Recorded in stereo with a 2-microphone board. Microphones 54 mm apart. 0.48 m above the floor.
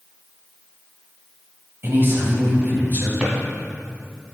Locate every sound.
1.8 s a man speaking: 40° right (ahead or behind), 3 m; by 3.1 s 35° right (ahead or behind), 3.5 m
3.2 s a drawer: 20° right (ahead or behind), 2 m